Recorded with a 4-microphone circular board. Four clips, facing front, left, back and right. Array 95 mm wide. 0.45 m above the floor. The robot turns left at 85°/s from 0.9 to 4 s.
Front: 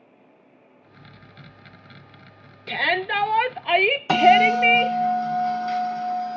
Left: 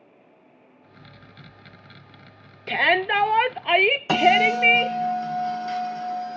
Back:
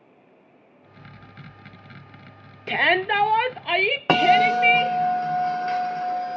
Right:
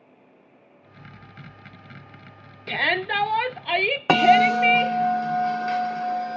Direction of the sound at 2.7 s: 160° left.